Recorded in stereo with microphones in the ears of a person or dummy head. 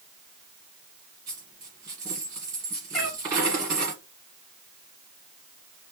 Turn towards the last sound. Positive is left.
turn(degrees=0)  # may be behind; listen again after turning